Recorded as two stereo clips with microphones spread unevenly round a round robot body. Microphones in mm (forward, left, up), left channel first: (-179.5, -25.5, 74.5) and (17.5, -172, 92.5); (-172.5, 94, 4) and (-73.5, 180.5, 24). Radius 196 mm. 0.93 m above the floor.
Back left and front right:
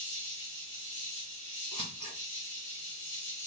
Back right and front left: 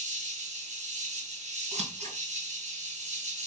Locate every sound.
0.0 s an insect: 75° left, 1.2 m
1.7 s scissors: 70° left, 1.9 m